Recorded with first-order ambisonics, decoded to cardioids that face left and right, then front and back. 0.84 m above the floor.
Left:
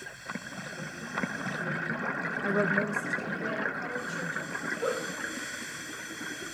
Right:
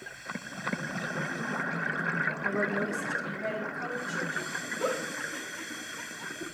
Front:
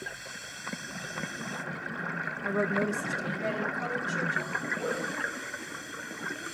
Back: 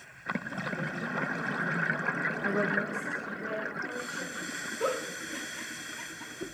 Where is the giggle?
130° right, 1.5 m.